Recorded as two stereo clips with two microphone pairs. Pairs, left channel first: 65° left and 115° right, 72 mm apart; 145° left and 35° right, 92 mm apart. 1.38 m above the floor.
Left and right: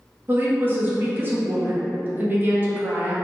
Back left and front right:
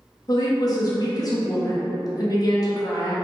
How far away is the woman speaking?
About 0.8 m.